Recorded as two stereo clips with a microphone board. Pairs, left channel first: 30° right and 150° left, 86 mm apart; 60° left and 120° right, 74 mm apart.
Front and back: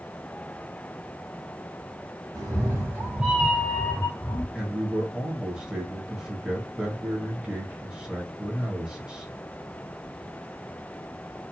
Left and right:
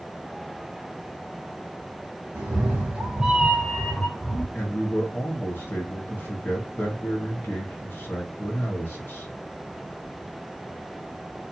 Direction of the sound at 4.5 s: 80° left.